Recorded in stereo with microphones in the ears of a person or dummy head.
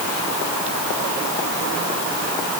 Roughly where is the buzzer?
I don't hear a buzzer.